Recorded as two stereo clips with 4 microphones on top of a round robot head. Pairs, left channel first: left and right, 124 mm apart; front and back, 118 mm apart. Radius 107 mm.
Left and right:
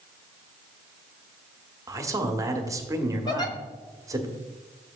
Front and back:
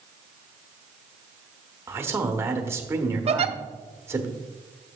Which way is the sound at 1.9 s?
130° right.